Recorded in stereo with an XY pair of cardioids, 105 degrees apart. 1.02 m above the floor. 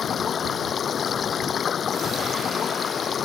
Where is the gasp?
I don't hear a gasp.